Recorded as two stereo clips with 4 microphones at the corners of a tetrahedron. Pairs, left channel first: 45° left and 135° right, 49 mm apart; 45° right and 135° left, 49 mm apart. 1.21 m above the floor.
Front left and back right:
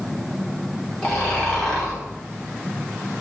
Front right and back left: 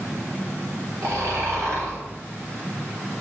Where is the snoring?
120° left, 4 m.